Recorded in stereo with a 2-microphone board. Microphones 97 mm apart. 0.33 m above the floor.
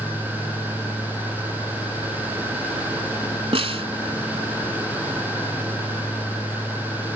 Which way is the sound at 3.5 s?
85° right.